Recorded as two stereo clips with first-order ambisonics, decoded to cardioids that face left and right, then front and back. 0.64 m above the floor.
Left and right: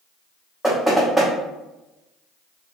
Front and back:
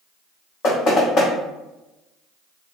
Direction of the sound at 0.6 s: Straight ahead.